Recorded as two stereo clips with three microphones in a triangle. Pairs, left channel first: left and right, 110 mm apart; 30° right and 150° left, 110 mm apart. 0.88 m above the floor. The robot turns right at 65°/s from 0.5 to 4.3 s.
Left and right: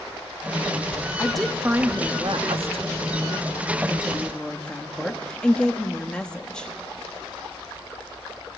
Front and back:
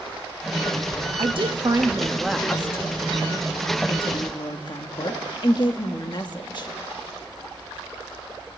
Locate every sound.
1.2 s a woman speaking: 165° left, 1.2 m; by 6.7 s 10° left, 1.2 m